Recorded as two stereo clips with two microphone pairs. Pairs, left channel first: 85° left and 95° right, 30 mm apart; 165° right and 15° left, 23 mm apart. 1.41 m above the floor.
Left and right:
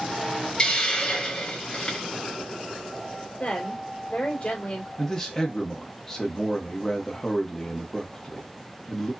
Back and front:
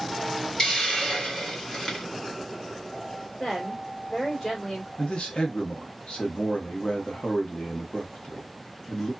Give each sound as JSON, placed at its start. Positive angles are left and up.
{"t": 0.6, "sound": "a hiss", "azimuth_deg": 140, "distance_m": 1.7}
{"t": 3.4, "sound": "a woman speaking", "azimuth_deg": 130, "distance_m": 2.0}
{"t": 5.0, "sound": "a man speaking", "azimuth_deg": 160, "distance_m": 1.0}